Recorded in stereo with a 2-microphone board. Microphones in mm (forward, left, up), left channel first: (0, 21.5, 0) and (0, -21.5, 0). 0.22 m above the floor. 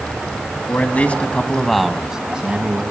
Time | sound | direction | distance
0.7 | a man speaking | 45° left (ahead or behind) | 1.8 m